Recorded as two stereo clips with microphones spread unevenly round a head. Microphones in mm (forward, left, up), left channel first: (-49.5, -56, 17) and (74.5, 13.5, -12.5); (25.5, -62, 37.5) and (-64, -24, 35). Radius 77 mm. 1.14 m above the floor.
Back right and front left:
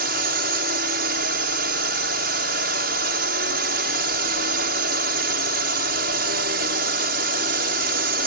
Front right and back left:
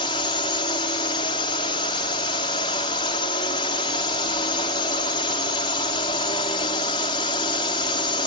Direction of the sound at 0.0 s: 25° left.